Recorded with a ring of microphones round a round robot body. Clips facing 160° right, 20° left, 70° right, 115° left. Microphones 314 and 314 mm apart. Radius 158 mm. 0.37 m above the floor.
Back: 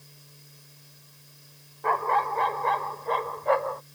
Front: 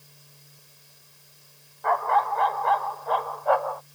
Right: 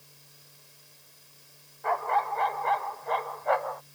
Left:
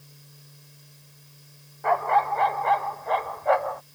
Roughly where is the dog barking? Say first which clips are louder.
Front 2 dB, left 5 dB; behind left.